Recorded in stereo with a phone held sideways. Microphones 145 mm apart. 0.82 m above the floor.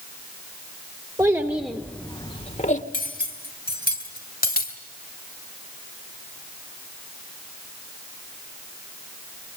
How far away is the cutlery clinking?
About 3 m.